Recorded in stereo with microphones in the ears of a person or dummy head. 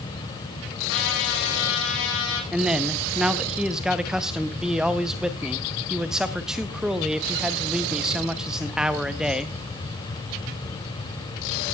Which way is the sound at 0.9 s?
80° left.